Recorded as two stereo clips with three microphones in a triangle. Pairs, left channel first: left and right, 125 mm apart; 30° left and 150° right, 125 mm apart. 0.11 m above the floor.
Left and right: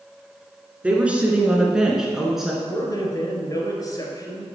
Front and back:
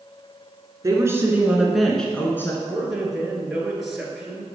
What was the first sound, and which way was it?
A woman speaking, 155° right.